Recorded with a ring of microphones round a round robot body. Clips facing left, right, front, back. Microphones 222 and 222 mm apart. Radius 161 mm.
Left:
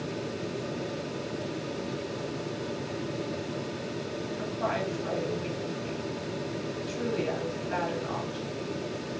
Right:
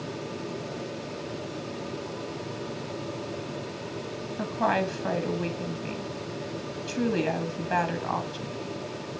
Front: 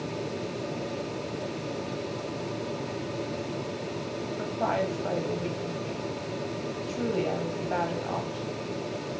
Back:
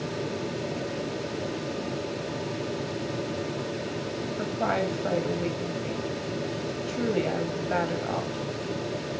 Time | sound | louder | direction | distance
4.4 | a woman speaking | right 6 dB, back 1 dB | 110° right | 1.5 m